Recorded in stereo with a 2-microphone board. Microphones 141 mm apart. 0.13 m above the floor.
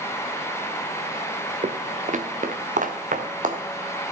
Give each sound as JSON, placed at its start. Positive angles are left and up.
{"t": 1.6, "sound": "footsteps", "side_deg": -55, "distance_m": 0.7}